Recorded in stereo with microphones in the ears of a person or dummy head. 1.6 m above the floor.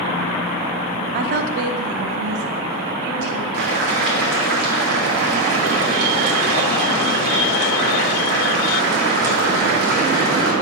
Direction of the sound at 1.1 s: 50° right (ahead or behind).